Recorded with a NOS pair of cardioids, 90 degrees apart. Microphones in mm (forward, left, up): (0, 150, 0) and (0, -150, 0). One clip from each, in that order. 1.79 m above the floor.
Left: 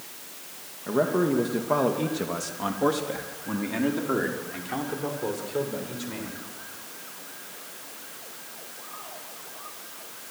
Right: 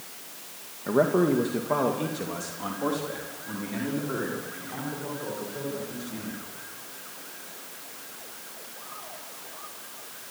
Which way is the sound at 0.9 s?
20° right.